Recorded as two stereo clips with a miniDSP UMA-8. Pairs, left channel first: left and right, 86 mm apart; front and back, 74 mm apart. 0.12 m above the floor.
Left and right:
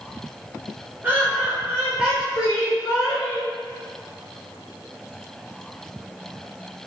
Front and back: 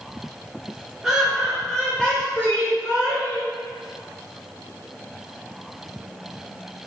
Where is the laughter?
110° right, 1.2 m; by 3.5 s 10° left, 1.5 m.